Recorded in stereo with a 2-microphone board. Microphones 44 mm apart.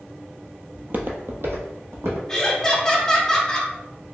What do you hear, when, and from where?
0.7 s footsteps: 30° right (ahead or behind), 0.5 m; by 2.2 s 75° right (ahead or behind), 1.4 m
2.3 s laughter: 15° left (ahead or behind), 0.8 m